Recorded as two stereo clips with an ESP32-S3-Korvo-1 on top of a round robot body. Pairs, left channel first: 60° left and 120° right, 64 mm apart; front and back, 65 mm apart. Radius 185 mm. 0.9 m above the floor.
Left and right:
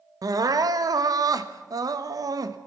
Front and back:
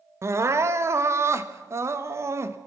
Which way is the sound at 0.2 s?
135° right.